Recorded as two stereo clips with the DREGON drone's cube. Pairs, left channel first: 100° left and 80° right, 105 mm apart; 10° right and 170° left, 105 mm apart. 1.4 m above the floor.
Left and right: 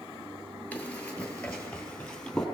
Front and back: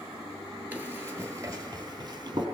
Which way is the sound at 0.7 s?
145° left.